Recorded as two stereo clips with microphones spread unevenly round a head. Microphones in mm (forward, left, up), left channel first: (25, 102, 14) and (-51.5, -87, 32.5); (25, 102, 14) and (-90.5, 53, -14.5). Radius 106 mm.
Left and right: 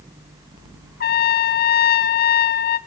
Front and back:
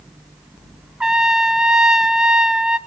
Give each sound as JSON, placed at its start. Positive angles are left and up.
{"t": 1.0, "sound": "a trumpet", "azimuth_deg": 110, "distance_m": 1.0}